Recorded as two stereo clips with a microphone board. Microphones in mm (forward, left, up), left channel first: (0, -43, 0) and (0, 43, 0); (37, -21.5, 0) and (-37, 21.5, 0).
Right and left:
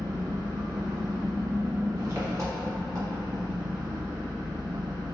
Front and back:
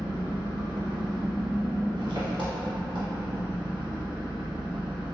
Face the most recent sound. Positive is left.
turn(degrees=140)